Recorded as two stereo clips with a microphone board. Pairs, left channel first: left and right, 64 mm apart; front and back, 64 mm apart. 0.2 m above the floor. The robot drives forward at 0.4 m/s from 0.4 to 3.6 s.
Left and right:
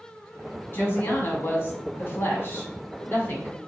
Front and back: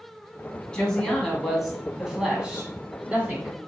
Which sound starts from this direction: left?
A woman speaking, at 0.7 s.